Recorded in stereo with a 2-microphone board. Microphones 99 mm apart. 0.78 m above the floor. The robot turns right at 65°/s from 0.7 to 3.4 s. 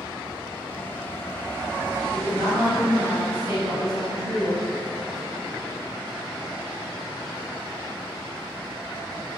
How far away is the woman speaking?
About 2.0 m.